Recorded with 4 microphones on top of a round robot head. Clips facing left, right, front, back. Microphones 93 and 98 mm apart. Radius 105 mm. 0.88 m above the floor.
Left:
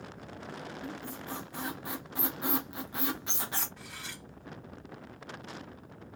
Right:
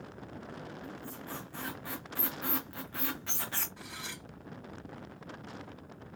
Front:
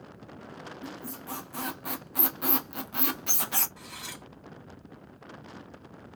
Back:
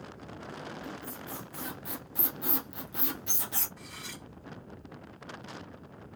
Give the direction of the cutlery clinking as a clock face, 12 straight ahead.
12 o'clock.